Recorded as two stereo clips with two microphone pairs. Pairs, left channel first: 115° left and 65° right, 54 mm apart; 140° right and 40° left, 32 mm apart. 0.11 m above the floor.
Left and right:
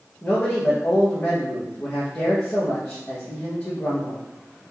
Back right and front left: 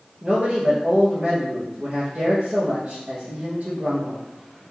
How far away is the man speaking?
About 1.9 m.